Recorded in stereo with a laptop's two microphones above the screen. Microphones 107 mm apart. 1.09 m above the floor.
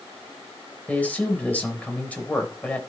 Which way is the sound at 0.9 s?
15° left (ahead or behind).